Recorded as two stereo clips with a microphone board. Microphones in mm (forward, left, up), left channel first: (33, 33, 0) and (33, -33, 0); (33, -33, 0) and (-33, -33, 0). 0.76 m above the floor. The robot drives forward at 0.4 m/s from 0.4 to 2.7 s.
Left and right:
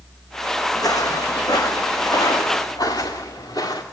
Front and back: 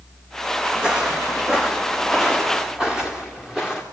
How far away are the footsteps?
About 2 m.